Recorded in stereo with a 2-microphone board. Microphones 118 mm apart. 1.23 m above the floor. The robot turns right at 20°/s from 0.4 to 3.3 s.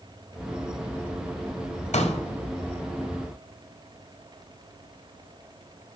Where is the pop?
75° left (ahead or behind), 1.6 m; by 2.2 s 70° left (ahead or behind), 1.6 m.